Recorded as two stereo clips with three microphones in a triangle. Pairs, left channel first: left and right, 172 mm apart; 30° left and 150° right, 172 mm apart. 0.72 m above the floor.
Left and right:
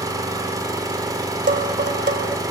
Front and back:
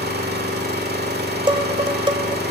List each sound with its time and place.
0.0 s an engine running: 160° right, 1.9 m
1.5 s dishes clattering: 90° right, 1.9 m